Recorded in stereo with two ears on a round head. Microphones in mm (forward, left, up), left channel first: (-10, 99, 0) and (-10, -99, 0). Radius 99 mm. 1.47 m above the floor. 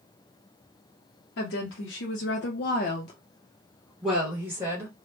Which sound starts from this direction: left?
A woman speaking, at 1.4 s.